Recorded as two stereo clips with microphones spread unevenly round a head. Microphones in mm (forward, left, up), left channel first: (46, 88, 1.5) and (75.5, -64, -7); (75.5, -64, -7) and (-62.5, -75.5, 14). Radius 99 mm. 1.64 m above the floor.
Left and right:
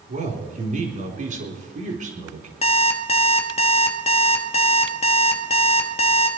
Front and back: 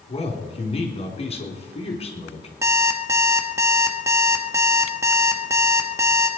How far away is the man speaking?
About 4 m.